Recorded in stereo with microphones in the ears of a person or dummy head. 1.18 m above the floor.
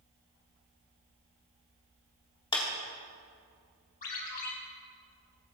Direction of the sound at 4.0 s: 50° left (ahead or behind).